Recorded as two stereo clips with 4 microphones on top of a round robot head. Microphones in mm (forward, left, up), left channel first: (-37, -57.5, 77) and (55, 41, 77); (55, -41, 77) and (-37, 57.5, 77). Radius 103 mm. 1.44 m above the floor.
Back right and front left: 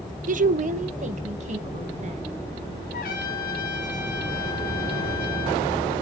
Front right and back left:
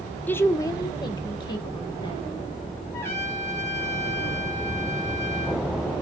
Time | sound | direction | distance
0.3 | a woman speaking | 30° left | 0.9 m
2.9 | a trumpet | 120° right | 3 m